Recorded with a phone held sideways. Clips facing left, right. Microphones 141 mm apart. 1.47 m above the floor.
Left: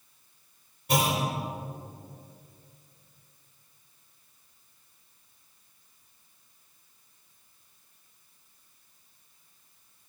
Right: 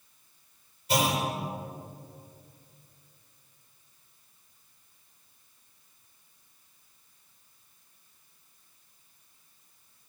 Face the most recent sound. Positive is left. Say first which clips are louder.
# even
turn(degrees=60)  # may be behind; listen again after turning